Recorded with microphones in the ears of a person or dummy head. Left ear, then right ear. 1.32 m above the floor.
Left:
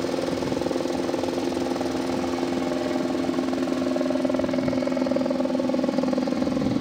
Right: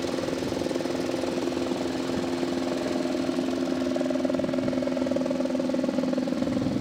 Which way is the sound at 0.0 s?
20° left (ahead or behind).